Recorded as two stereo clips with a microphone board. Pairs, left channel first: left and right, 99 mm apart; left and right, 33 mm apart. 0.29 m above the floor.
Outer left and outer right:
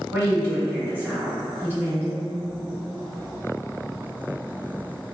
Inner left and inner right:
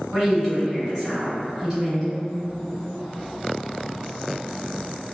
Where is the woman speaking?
15° right (ahead or behind), 1.6 m.